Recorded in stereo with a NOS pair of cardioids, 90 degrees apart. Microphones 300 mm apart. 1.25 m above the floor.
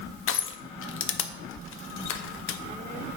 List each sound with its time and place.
0.3 s crushing: 45° left, 0.5 m